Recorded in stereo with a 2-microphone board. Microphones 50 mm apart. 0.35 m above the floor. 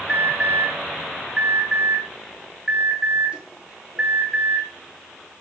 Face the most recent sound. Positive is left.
turn(degrees=-20)  # may be behind; listen again after turning